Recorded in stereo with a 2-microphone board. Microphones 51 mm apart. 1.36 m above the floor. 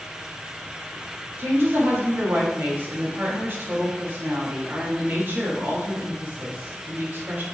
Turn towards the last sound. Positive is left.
turn(degrees=-45)  # may be behind; listen again after turning